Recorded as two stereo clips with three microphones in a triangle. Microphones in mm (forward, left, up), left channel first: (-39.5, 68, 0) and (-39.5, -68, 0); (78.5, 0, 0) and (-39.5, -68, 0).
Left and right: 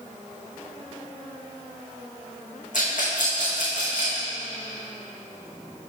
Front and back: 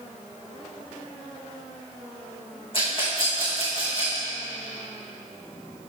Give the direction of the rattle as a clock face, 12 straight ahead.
9 o'clock.